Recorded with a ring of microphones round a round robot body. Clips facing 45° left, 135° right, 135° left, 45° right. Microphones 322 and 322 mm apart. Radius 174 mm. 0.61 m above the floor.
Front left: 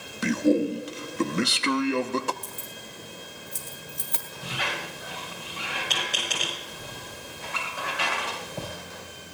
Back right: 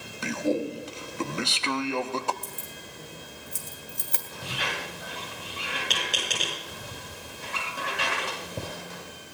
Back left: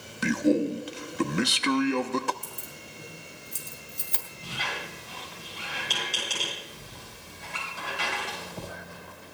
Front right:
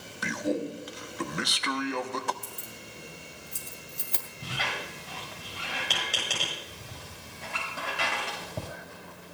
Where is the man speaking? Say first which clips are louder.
Front left 6 dB, back left 7 dB; 100° left, 0.9 m.